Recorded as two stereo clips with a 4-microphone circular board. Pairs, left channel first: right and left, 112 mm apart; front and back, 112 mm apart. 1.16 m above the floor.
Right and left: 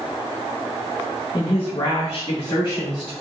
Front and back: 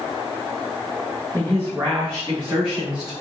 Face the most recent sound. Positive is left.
turn(degrees=-135)